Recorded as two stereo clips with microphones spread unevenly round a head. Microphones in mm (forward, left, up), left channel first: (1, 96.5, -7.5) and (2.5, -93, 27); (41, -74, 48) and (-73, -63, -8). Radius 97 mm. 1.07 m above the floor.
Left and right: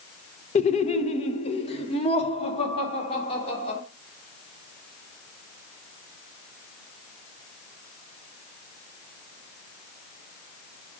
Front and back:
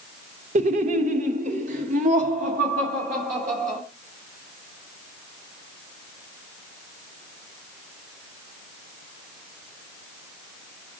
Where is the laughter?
150° left, 0.7 m; by 3.8 s 155° left, 3 m.